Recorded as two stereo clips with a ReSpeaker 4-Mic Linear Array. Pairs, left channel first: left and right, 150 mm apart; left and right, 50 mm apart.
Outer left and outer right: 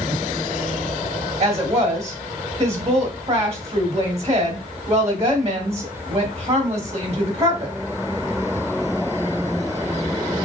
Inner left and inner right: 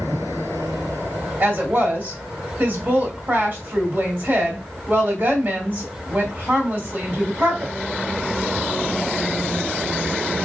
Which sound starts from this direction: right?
A woman speaking, at 1.4 s.